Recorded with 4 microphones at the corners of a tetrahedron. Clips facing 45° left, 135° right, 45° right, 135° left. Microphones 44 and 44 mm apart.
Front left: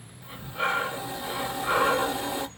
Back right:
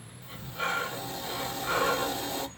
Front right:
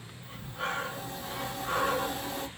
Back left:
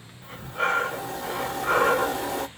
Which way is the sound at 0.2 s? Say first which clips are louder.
Front left 4 dB, back left 9 dB; 120° left.